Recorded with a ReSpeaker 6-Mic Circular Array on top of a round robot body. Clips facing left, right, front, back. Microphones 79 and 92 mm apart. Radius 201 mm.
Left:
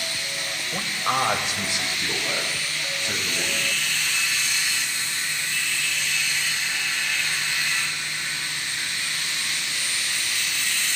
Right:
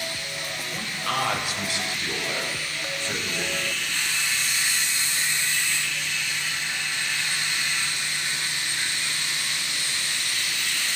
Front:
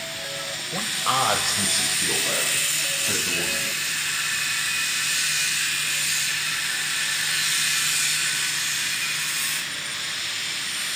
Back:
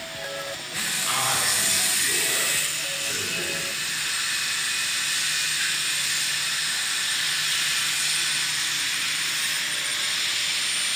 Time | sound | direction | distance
0.7 | a man speaking | 30° left | 3.5 m